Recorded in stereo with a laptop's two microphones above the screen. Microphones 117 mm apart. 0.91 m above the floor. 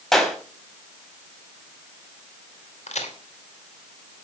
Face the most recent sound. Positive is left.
turn(degrees=80)